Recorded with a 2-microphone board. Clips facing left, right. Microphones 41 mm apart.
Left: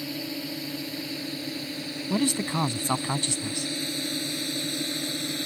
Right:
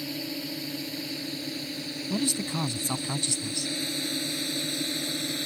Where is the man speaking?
45° left (ahead or behind).